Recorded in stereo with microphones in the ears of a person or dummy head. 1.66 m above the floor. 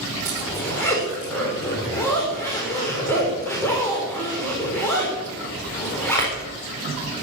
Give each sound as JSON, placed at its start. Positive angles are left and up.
{"t": 0.2, "sound": "a zipper", "side_deg": 15, "distance_m": 4.0}